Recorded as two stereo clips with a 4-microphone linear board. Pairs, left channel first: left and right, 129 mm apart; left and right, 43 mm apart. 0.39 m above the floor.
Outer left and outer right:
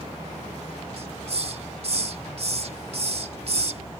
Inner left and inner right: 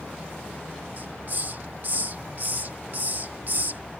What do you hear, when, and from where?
1.0 s a hiss: 50° right (ahead or behind)